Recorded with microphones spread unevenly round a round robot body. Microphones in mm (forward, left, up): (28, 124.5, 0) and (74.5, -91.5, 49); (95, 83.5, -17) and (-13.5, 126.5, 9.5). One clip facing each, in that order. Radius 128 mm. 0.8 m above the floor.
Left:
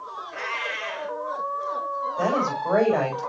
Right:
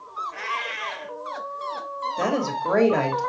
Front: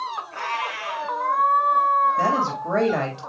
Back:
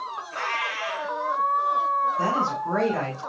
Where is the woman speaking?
20° right, 3 m.